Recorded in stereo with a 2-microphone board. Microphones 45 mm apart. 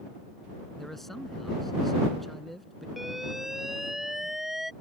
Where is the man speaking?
5° left (ahead or behind).